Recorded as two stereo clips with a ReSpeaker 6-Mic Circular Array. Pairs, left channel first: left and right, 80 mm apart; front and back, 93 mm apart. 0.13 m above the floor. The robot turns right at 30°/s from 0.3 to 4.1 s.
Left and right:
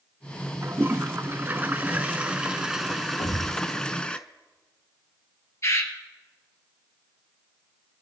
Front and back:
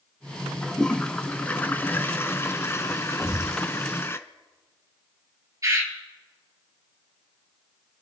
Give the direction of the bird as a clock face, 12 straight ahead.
8 o'clock.